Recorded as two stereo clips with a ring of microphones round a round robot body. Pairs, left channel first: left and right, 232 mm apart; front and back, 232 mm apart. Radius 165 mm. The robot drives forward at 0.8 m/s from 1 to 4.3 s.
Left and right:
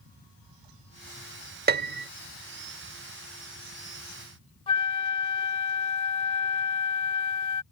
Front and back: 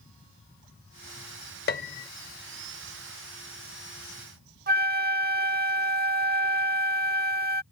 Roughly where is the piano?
Ahead right.